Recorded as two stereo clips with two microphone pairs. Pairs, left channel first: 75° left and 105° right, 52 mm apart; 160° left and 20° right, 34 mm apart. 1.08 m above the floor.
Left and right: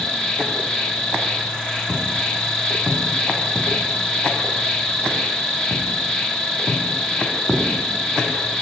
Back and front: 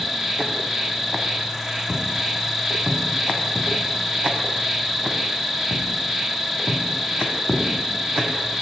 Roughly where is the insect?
Ahead left.